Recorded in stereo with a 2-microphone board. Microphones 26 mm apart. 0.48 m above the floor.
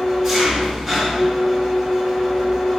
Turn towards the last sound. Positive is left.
turn(degrees=0)  # may be behind; listen again after turning